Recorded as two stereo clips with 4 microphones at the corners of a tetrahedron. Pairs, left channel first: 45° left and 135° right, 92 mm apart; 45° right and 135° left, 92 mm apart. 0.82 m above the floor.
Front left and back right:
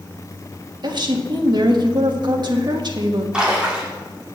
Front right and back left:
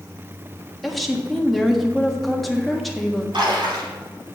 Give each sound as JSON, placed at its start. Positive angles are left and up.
{"t": 0.8, "sound": "a woman speaking", "azimuth_deg": -135, "distance_m": 1.4}
{"t": 3.3, "sound": "a splash", "azimuth_deg": 145, "distance_m": 2.5}